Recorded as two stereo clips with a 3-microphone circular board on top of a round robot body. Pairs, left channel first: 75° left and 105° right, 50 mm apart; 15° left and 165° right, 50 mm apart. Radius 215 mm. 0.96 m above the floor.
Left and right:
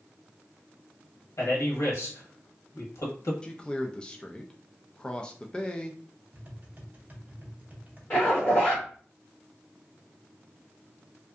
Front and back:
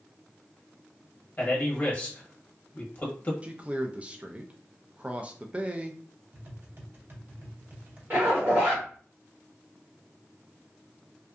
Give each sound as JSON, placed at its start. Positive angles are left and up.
{"t": 1.4, "sound": "a man speaking", "azimuth_deg": 75, "distance_m": 1.1}
{"t": 3.4, "sound": "a man speaking", "azimuth_deg": 140, "distance_m": 0.5}
{"t": 6.3, "sound": "tapping", "azimuth_deg": -145, "distance_m": 1.0}
{"t": 8.1, "sound": "a zipper", "azimuth_deg": 145, "distance_m": 1.1}